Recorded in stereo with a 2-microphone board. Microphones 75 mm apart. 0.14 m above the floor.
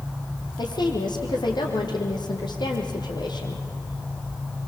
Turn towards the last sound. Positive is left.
turn(degrees=75)  # may be behind; listen again after turning